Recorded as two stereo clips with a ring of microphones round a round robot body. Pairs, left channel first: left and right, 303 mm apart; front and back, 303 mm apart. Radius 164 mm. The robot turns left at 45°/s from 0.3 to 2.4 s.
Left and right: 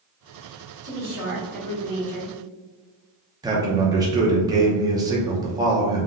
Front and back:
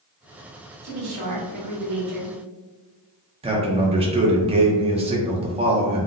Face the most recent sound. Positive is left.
turn(degrees=-145)